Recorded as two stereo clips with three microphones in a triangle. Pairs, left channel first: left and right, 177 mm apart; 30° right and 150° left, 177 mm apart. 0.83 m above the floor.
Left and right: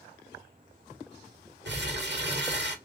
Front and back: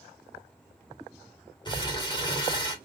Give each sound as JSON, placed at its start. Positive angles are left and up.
{"t": 1.6, "sound": "crumpling", "azimuth_deg": -95, "distance_m": 1.2}